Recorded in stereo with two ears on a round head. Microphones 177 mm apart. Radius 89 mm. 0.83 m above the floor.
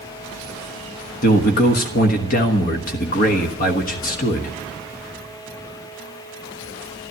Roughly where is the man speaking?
Left.